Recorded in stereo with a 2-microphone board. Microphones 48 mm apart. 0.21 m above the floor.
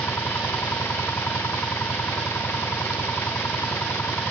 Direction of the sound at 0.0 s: 60° left (ahead or behind).